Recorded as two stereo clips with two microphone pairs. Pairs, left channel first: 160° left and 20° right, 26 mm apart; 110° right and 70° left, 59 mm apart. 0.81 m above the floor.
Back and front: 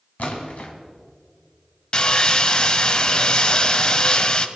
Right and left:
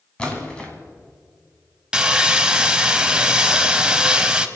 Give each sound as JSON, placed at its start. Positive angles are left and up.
{"t": 0.2, "sound": "a splash", "azimuth_deg": 180, "distance_m": 2.5}
{"t": 1.9, "sound": "sawing", "azimuth_deg": 140, "distance_m": 0.7}